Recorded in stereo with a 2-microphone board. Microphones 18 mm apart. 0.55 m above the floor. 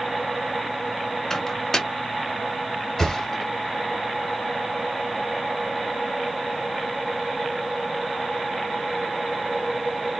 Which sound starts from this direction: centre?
A thud, at 3.0 s.